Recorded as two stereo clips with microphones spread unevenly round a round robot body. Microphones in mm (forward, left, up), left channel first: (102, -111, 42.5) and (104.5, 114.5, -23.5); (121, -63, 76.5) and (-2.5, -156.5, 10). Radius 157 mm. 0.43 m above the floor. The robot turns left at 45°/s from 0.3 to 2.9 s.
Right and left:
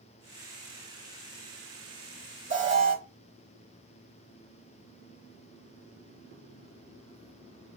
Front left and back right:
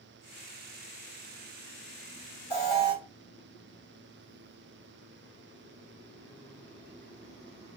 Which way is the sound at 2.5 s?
100° left.